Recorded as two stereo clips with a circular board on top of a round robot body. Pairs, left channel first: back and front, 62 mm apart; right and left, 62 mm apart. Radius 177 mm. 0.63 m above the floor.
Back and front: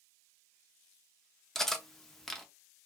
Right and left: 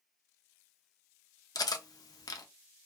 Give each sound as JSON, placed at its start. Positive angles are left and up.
{"t": 1.6, "sound": "cutlery clinking", "azimuth_deg": -95, "distance_m": 0.6}